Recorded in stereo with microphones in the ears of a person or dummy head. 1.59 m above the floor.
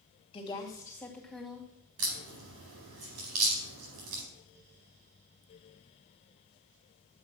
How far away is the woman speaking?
About 2.5 m.